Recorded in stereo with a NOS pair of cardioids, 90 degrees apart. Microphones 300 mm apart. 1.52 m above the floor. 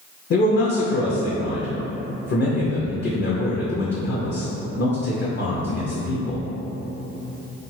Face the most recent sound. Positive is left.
turn(degrees=35)